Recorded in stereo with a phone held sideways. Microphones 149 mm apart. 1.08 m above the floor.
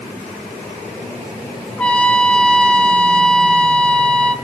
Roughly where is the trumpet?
Centre.